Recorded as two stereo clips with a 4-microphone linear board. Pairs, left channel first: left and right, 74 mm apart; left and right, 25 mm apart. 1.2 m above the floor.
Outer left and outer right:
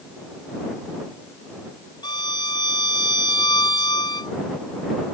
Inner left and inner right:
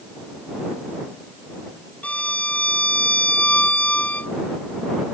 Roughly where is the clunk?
No clunk in this recording.